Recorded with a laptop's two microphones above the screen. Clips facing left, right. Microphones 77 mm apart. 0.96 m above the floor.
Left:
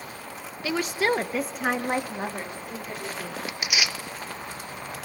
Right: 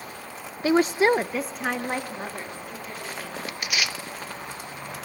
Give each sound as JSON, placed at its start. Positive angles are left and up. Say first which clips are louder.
{"t": 0.6, "sound": "a woman speaking", "louder": "right 6 dB", "side_deg": -35, "distance_m": 0.6}
{"t": 3.5, "sound": "tearing paper", "louder": "even", "side_deg": 10, "distance_m": 0.6}